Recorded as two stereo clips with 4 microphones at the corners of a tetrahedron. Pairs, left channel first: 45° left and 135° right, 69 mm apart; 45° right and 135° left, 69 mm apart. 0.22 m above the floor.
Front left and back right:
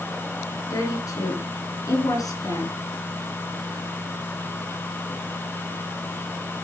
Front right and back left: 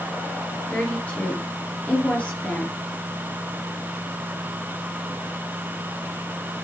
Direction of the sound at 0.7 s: 25° left.